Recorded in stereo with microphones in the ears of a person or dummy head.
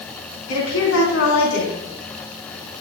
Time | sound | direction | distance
0.5 | a woman speaking | 80° left | 3.5 m